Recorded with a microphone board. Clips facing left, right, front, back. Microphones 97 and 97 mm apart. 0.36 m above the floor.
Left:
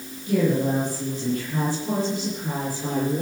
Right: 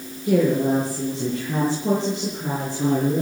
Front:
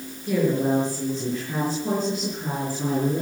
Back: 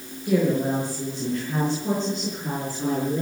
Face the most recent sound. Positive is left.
turn(degrees=-70)